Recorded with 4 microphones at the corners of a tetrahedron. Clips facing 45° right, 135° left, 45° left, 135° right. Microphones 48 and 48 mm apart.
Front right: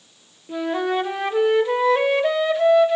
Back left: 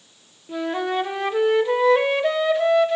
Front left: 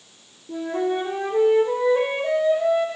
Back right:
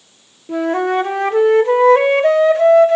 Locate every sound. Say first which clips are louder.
0.5 s a flute: front right 2 dB, back right 7 dB; 135° right, 0.5 m